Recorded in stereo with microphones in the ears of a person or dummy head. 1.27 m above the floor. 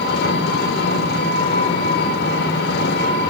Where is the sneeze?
I don't hear a sneeze.